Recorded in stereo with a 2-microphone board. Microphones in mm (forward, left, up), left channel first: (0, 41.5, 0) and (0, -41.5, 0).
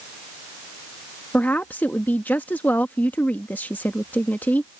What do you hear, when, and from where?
1.3 s a woman speaking: 20° left (ahead or behind)